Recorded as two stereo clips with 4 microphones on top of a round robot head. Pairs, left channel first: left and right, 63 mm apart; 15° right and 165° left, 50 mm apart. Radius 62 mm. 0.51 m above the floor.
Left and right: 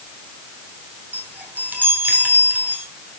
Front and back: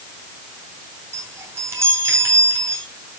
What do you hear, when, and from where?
1.1 s a chime: 155° right, 3 m